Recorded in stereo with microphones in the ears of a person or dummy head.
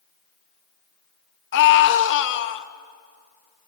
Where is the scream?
65° left (ahead or behind), 1.8 m.